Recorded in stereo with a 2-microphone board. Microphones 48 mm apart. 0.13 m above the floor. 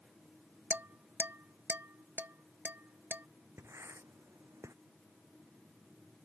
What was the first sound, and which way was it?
Dishes clattering, 45° right (ahead or behind).